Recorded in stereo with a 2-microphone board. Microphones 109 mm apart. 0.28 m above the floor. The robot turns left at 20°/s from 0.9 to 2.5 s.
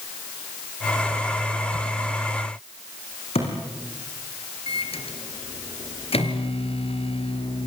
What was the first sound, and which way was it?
A thud, 75° left (ahead or behind).